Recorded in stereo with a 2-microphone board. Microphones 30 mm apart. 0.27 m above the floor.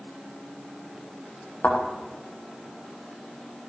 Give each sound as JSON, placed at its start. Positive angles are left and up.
{"t": 1.6, "sound": "a thud", "side_deg": 75, "distance_m": 5.0}